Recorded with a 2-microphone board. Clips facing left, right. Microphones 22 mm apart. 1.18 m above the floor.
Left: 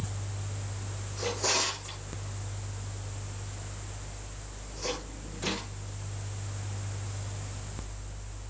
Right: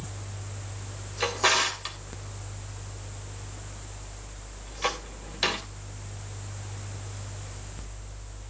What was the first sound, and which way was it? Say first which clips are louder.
A drawer: right 5 dB; 70° right (ahead or behind).